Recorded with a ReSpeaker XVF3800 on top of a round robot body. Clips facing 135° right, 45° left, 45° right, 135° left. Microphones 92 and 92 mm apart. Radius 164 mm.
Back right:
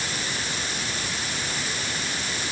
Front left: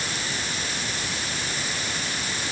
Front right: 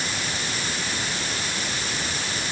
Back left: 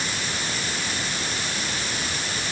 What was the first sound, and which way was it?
Only background noise.